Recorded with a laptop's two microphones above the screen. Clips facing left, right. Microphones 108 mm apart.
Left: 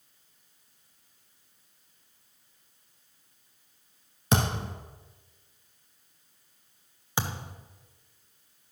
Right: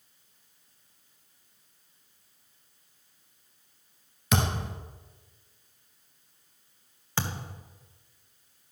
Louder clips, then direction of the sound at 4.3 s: Left 1 dB; 35° left (ahead or behind).